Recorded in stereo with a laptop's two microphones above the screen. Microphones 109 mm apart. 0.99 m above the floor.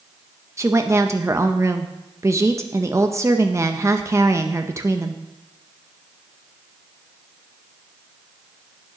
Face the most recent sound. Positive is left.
turn(degrees=-25)  # may be behind; listen again after turning